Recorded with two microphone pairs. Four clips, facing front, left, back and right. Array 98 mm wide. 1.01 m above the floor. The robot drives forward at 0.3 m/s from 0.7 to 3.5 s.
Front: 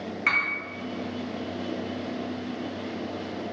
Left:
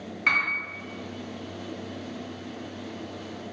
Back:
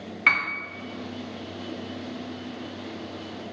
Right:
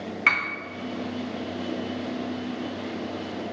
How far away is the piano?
About 0.6 m.